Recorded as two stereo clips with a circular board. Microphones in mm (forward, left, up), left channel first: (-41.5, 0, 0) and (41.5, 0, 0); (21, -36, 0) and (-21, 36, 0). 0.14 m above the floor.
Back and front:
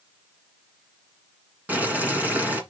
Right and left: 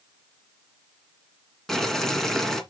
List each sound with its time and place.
1.7 s boiling: 15° left, 1.6 m